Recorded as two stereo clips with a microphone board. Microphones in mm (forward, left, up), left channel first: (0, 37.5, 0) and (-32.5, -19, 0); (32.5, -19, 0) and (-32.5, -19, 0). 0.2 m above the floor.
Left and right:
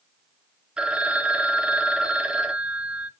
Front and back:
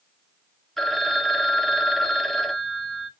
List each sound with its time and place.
0.8 s a phone ringing: 80° right, 0.6 m